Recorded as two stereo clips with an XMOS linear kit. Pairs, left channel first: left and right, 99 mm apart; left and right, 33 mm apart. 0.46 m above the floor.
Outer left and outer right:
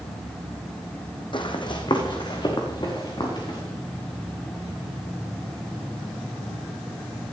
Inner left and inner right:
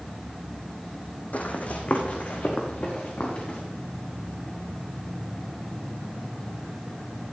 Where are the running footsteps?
55° left (ahead or behind), 1.6 m; by 3.6 s 45° left (ahead or behind), 4 m.